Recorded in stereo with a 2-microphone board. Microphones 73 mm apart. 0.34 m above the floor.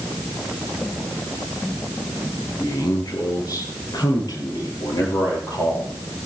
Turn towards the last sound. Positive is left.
turn(degrees=70)  # may be behind; listen again after turning